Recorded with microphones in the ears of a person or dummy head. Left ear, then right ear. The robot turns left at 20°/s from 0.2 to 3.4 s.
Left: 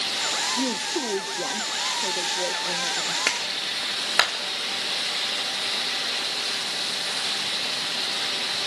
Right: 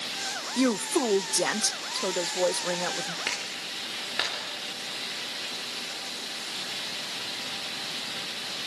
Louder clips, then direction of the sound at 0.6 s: Even; 80° right.